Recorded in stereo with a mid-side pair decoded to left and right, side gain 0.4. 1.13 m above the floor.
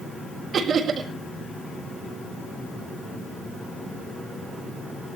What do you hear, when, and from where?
0.5 s laughter: 65° right, 4 m